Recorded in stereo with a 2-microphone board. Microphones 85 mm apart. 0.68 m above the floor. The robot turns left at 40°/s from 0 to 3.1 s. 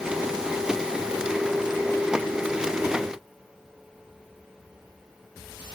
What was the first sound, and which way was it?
Only background noise.